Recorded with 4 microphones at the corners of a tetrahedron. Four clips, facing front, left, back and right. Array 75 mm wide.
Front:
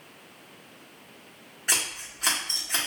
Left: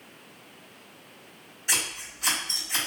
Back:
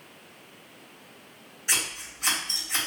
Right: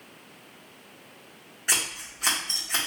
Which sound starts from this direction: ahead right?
Scissors, at 1.7 s.